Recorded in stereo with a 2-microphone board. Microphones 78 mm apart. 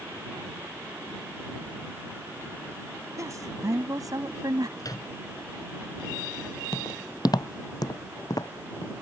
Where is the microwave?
50° left (ahead or behind).